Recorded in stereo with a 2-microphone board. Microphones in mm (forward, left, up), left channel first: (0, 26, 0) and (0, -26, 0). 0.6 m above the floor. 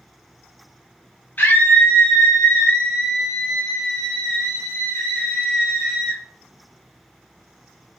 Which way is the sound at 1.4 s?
35° left (ahead or behind).